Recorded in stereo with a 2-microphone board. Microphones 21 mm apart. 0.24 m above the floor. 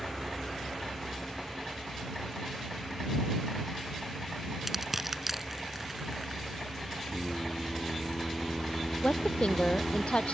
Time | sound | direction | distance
4.7 | crushing | 10° right (ahead or behind) | ?
7.1 | singing | 60° left (ahead or behind) | ?
9.0 | a woman speaking | 70° left (ahead or behind) | ?